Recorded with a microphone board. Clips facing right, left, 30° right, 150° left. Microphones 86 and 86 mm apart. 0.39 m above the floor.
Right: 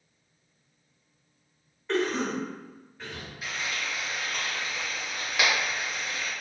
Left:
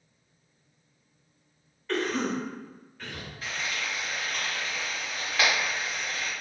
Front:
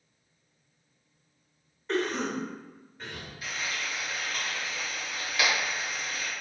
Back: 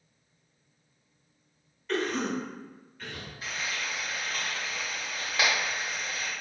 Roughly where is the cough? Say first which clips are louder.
Right 1 dB, even; ahead right.